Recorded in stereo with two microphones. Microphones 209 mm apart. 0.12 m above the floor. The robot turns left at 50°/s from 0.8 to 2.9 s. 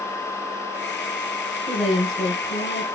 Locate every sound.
1.7 s a woman speaking: 160° right, 1.9 m; by 2.9 s 140° left, 1.9 m